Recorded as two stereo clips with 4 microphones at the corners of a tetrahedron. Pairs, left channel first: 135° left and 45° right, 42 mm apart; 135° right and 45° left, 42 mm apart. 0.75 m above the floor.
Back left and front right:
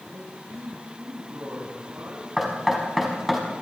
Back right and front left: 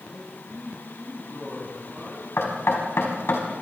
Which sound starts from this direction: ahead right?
A man speaking, at 0.1 s.